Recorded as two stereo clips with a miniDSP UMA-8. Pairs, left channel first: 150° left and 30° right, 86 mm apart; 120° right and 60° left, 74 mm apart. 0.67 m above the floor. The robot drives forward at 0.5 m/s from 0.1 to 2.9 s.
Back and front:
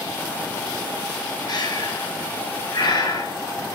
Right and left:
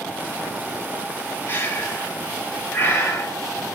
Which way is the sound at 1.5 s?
Straight behind.